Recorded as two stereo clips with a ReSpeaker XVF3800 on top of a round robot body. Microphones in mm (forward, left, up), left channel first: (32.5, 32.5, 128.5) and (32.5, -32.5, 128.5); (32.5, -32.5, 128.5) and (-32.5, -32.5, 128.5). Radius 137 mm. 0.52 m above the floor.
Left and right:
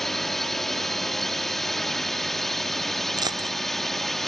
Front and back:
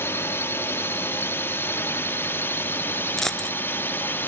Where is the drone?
5° left.